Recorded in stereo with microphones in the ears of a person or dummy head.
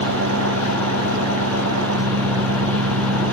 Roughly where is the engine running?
Right.